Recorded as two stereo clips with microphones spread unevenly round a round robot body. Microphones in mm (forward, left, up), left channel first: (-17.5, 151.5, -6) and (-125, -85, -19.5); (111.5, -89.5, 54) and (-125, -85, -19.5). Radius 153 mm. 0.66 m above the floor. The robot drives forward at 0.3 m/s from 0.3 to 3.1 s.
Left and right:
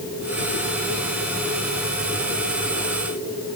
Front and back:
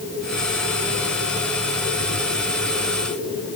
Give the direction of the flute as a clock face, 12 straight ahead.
No flute in this recording.